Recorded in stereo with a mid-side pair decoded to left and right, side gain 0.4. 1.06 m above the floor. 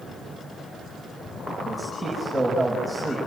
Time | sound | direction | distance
1.6 | a man speaking | straight ahead | 6.5 m